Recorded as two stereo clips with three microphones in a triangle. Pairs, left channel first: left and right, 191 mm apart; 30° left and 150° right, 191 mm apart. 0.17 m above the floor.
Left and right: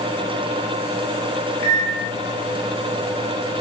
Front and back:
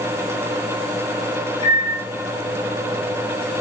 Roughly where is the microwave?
Ahead left.